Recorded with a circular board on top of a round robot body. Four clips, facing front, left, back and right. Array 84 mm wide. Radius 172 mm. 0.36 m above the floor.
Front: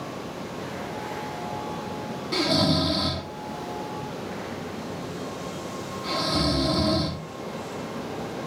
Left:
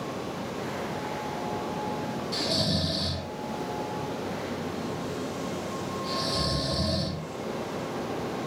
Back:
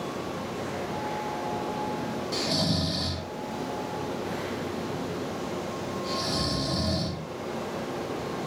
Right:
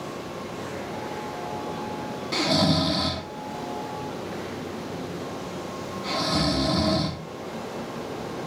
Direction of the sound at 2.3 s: 65° right.